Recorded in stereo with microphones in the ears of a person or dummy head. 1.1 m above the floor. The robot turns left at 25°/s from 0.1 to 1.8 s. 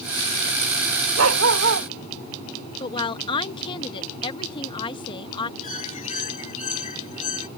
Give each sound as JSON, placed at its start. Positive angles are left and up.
{"t": 1.2, "sound": "a dog barking", "side_deg": -80}
{"t": 2.8, "sound": "a woman speaking", "side_deg": 35}
{"t": 5.6, "sound": "a bird", "side_deg": 35}